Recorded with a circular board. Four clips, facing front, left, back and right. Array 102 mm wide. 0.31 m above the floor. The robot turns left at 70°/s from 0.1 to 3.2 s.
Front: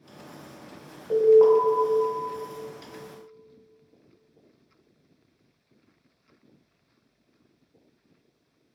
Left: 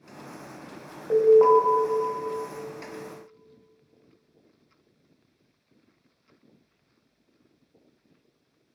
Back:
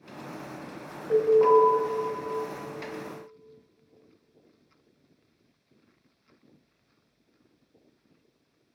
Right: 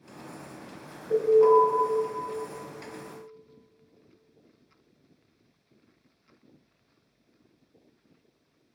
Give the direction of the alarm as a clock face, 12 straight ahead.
9 o'clock.